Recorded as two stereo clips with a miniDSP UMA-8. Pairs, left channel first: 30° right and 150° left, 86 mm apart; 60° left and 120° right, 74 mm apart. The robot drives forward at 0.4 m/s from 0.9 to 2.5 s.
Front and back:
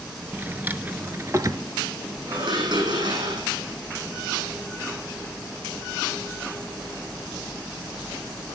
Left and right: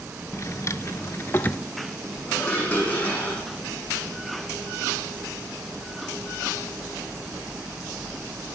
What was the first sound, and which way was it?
A drawer, 90° left.